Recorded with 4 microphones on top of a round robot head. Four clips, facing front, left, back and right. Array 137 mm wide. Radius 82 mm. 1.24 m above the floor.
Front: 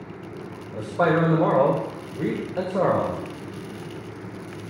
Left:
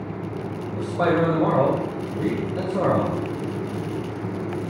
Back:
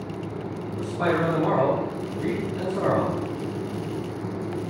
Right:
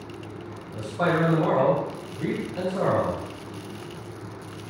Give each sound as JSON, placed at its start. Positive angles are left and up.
{"t": 0.7, "sound": "a man speaking", "azimuth_deg": 25, "distance_m": 2.5}